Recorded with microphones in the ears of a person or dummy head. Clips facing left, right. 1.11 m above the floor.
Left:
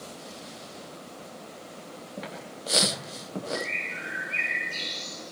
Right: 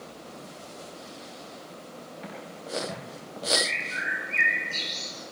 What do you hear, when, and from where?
2.2 s footsteps: 75° left (ahead or behind), 9.5 m; by 3.4 s 80° left, 9 m
3.5 s a bird: 25° right (ahead or behind), 4 m